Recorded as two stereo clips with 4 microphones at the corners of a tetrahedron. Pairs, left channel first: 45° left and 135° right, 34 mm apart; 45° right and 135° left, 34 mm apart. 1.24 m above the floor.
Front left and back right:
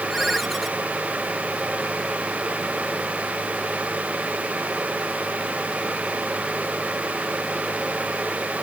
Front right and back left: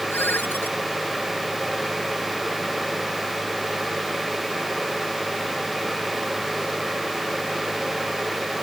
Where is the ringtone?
45° right.